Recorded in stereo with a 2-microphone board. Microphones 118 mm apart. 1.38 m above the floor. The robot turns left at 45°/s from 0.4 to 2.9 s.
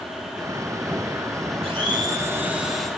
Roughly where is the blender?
Behind right.